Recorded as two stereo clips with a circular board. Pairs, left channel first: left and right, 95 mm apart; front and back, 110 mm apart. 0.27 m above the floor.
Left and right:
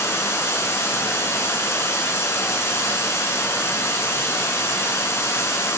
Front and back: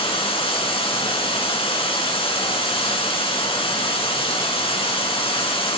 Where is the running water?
30° left, 2.5 m.